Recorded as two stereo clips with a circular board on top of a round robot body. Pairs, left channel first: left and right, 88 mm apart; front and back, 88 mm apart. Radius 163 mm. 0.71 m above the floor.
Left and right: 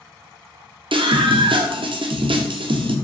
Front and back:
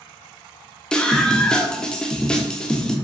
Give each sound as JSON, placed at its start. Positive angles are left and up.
{"t": 0.9, "sound": "a scream", "azimuth_deg": -80, "distance_m": 0.9}